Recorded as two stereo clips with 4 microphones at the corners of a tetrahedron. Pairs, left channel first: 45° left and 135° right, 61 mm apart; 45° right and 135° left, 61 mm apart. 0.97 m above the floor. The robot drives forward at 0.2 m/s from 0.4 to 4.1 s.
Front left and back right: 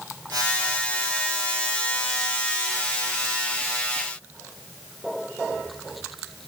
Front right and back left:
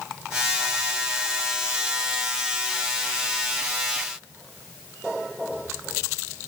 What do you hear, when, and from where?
Only background noise.